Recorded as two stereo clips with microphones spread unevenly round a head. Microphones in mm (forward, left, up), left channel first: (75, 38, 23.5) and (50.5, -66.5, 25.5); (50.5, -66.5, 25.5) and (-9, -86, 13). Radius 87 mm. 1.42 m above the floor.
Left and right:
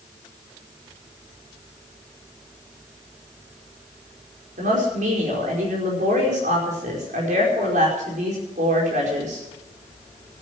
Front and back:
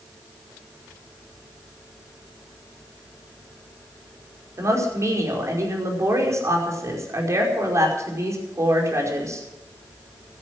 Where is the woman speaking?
125° right, 5 m.